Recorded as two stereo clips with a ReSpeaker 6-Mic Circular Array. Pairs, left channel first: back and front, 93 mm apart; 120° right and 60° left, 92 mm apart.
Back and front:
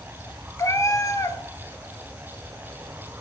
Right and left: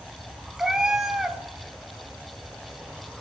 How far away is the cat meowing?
About 0.5 m.